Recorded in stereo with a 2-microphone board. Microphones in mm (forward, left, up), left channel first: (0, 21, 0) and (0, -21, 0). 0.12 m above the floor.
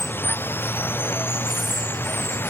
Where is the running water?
60° left (ahead or behind).